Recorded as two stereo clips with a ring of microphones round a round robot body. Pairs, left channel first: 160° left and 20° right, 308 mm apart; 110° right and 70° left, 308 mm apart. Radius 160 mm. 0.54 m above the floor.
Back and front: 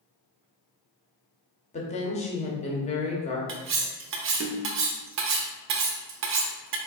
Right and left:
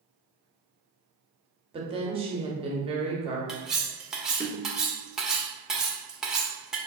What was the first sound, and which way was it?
A woman speaking, 120° left.